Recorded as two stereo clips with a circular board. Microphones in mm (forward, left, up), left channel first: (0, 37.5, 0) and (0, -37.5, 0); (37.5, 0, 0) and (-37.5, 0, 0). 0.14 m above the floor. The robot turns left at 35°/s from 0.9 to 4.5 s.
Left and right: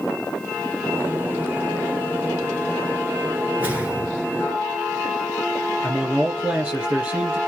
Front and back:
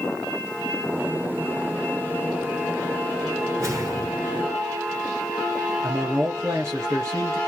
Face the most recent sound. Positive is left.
turn(degrees=-155)